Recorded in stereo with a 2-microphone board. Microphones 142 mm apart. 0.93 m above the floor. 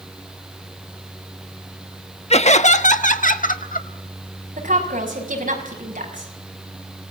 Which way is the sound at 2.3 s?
50° left (ahead or behind).